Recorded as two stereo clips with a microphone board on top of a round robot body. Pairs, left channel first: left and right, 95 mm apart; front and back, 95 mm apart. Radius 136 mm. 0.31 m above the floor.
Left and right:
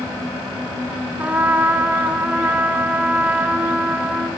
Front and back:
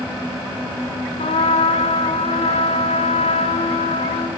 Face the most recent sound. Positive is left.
turn(degrees=-15)